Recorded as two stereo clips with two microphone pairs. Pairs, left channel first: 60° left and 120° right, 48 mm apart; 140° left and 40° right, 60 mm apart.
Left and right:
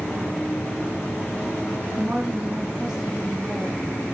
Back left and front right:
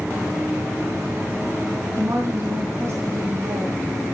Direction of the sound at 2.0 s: 60° right.